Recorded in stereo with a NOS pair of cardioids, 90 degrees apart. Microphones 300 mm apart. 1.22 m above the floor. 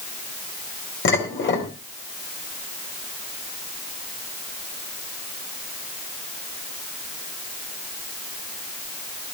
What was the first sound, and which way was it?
Dishes clattering, 40° left.